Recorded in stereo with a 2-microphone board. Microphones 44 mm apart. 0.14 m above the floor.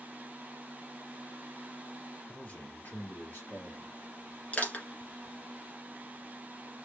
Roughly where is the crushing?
Left.